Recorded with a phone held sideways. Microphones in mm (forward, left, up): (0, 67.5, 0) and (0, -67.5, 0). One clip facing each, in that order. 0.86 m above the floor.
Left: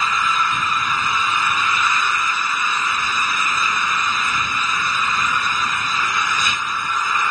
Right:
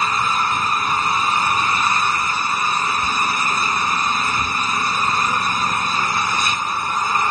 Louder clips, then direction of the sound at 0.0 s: Right 1 dB; 35° right (ahead or behind).